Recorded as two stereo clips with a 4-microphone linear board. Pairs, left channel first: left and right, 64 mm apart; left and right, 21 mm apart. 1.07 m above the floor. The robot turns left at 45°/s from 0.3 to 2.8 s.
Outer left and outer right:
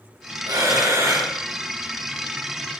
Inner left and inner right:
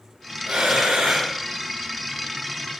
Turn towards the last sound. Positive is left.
turn(degrees=155)